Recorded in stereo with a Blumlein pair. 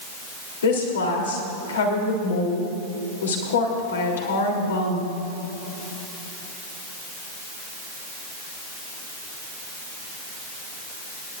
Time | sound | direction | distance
0.6 | a woman speaking | 65° left | 3.5 m